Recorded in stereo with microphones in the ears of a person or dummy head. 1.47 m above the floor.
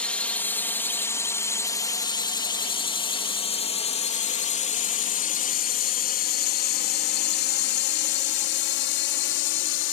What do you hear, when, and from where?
0.0 s a drone: 5° left (ahead or behind); by 9.9 s 65° left (ahead or behind)